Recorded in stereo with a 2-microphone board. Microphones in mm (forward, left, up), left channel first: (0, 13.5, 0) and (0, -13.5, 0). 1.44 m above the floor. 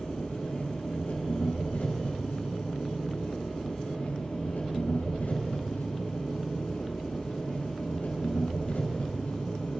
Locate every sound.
0.0 s an engine running: 75° left (ahead or behind), 6.5 m